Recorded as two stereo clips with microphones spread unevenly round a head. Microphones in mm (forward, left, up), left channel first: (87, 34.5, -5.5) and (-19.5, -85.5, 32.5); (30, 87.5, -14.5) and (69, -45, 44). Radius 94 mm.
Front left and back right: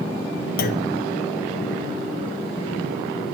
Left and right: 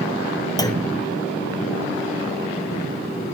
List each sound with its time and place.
0.6 s a clunk: 55° left, 1.4 m